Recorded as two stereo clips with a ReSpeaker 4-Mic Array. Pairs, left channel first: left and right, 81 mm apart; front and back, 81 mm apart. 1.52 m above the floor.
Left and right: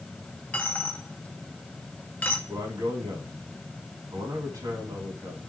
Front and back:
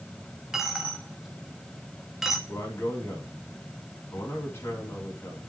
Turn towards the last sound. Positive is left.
turn(degrees=-50)